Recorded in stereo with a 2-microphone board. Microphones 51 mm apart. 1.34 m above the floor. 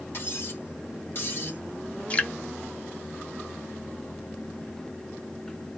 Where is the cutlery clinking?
50° left (ahead or behind), 1.6 m.